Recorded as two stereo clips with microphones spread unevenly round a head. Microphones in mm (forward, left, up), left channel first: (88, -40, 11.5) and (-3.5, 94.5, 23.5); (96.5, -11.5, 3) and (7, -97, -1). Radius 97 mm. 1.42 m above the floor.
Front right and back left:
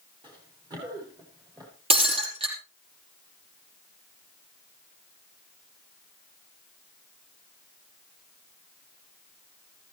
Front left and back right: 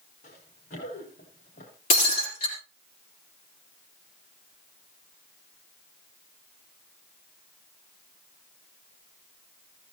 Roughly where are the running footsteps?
Ahead left.